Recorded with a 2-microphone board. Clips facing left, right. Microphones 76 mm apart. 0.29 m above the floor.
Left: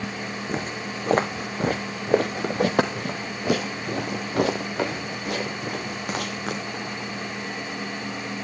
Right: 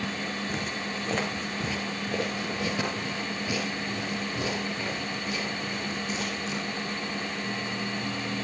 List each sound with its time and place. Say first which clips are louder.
0.5 s footsteps: left 3 dB; 40° left (ahead or behind), 1.6 m; by 7.1 s 85° left, 4.5 m